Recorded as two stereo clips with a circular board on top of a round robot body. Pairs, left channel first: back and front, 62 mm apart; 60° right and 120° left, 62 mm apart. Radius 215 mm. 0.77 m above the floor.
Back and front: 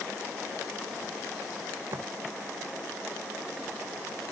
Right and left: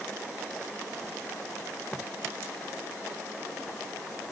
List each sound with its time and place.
1.9 s footsteps: 10° left